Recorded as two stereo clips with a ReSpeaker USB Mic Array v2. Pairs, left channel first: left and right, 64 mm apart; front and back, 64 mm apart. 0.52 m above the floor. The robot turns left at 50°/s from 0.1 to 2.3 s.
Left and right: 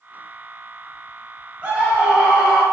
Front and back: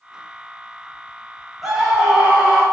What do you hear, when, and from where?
1.6 s a scream: 100° right, 1.0 m; by 2.6 s 135° right, 1.0 m